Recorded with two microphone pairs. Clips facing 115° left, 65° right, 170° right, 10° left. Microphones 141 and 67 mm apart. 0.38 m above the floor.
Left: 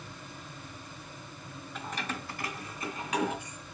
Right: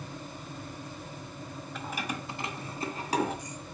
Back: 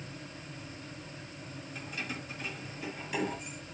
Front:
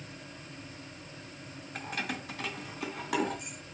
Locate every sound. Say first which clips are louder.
1.8 s keys jangling: right 1 dB, front 4 dB; 25° left, 1.5 m; by 3.6 s 15° right, 3.5 m